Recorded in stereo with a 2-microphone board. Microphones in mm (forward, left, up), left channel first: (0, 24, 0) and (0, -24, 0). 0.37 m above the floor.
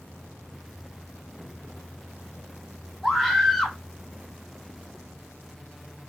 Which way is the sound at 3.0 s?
10° left (ahead or behind).